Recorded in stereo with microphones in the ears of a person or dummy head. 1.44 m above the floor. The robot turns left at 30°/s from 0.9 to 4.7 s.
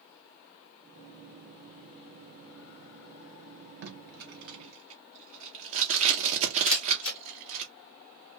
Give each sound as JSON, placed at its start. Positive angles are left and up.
{"t": 3.8, "sound": "tape being pulled", "side_deg": -50, "distance_m": 0.6}
{"t": 6.7, "sound": "a camera shutter", "side_deg": 65, "distance_m": 1.1}